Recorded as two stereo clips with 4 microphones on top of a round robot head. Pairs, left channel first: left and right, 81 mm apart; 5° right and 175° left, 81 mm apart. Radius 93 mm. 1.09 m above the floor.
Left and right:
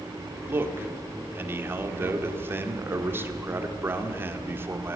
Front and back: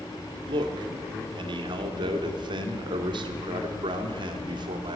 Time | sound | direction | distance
0.5 | a man speaking | 155° right | 2.5 m